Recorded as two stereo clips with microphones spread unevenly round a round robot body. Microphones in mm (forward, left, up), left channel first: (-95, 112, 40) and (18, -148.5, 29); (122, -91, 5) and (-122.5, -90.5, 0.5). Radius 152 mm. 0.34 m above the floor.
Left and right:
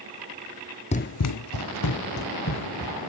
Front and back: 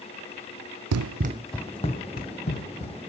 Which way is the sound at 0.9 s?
Straight behind.